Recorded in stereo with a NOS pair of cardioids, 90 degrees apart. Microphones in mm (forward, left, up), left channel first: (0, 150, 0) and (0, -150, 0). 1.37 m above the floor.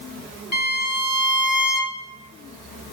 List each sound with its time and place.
0.5 s a violin: 35° left, 1.1 m